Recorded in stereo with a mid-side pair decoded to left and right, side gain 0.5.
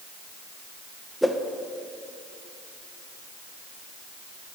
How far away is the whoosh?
About 0.5 m.